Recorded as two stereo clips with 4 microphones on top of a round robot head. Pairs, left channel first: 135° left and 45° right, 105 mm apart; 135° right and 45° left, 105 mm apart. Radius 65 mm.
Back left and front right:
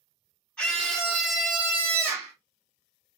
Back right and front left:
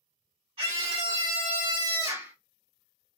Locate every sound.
0.6 s a scream: 55° left, 2 m; by 2.4 s 10° right, 1.3 m